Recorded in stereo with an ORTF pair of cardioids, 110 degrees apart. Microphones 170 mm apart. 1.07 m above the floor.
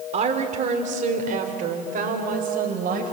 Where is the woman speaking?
40° right, 3 m; by 3.1 s 60° right, 5 m.